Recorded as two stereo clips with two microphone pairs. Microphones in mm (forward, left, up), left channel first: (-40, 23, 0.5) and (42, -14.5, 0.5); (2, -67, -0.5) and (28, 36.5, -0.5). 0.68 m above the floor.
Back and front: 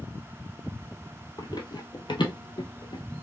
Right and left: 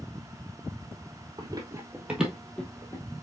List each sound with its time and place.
1.4 s running footsteps: 120° left, 1.2 m; by 3.0 s 170° right, 1.5 m